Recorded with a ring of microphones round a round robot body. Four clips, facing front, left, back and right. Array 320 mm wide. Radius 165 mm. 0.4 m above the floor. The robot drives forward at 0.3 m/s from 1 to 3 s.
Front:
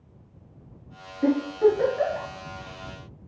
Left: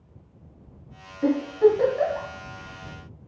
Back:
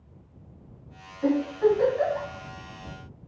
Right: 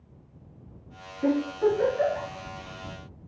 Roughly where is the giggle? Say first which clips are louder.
Left 5 dB, front 2 dB; ahead left.